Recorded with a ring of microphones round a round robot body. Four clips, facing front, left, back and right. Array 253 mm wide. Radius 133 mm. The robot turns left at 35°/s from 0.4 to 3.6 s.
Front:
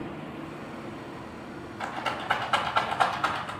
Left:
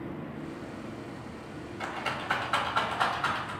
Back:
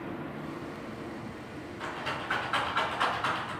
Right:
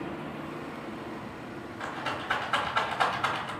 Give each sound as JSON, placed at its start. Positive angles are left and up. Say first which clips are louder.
{"t": 1.8, "sound": "a rattle", "louder": "even, front 4 dB", "azimuth_deg": 30, "distance_m": 1.3}